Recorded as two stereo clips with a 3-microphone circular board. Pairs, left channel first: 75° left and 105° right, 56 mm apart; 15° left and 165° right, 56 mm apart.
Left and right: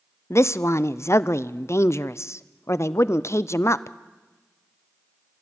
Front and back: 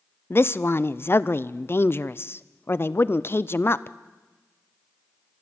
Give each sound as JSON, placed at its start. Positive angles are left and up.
{"t": 0.3, "sound": "a woman speaking", "azimuth_deg": 55, "distance_m": 0.5}